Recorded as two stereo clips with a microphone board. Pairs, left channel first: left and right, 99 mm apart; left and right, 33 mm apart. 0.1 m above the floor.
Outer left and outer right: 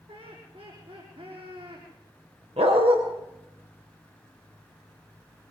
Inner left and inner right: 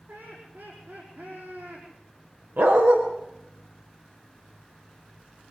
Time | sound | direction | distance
0.1 | laughter | 65° right (ahead or behind) | 5.5 m
2.6 | a dog barking | 80° right | 5 m